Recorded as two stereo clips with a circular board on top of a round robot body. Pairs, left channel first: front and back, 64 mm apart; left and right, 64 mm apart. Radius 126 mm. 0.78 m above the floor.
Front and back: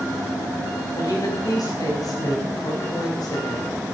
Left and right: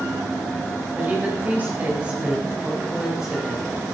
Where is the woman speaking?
30° right, 5.5 m; by 3.7 s 5° right, 4 m.